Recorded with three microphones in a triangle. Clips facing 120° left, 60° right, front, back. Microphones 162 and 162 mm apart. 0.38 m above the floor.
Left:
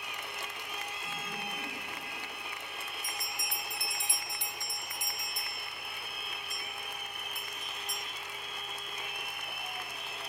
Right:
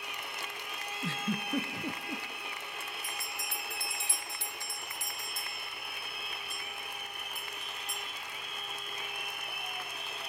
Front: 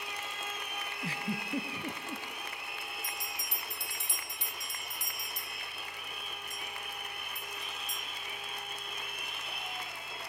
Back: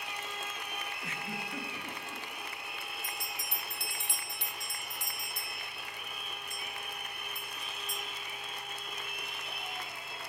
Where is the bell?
170° right, 2 m.